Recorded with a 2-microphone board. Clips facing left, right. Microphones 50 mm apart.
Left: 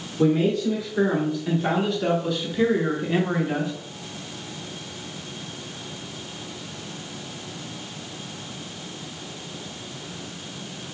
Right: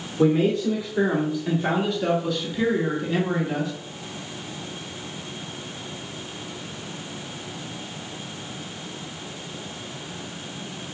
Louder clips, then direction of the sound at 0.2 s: Right 1 dB; 20° right (ahead or behind).